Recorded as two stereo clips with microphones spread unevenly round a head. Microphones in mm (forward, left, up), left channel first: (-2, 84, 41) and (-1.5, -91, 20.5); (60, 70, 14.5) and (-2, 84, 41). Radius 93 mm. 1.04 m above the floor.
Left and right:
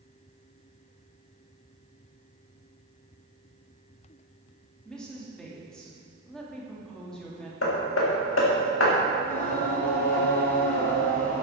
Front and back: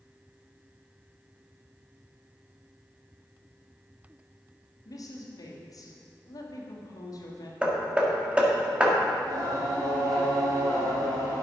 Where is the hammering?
95° left, 1.9 m.